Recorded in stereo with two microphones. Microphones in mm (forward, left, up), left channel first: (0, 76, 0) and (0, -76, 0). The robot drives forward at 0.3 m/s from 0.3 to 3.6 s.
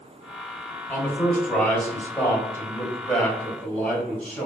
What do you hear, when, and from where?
0.9 s a man speaking: 15° left (ahead or behind), 1.0 m; by 4.5 s 10° left (ahead or behind), 1.6 m